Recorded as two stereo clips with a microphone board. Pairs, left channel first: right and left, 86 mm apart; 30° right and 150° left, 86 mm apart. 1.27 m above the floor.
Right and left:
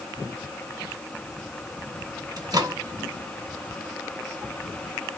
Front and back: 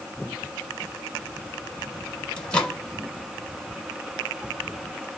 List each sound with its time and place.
2.4 s a microwave: 50° left, 0.9 m